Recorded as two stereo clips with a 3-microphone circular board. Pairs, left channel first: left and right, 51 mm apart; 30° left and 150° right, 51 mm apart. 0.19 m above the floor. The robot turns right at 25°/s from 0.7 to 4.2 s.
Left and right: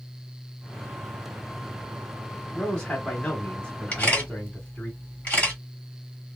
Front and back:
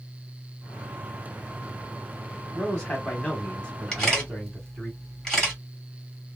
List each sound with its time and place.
2.5 s a man speaking: 35° left, 1.0 m; by 4.9 s 75° left, 1.0 m
3.9 s a camera shutter: 90° left, 1.8 m; by 5.6 s 95° left, 1.8 m